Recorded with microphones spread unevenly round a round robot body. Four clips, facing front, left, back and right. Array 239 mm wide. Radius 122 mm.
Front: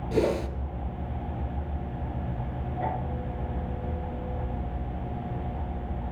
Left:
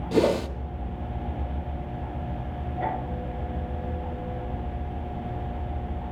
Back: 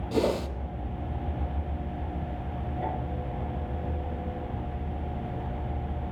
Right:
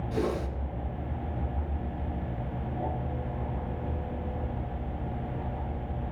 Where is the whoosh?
90° left, 0.8 m.